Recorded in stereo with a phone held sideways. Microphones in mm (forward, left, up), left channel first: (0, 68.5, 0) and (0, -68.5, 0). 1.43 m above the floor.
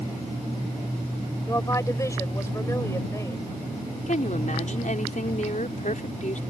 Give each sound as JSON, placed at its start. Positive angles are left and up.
{"t": 1.4, "sound": "a woman speaking", "side_deg": 20}
{"t": 4.1, "sound": "a woman speaking", "side_deg": 65}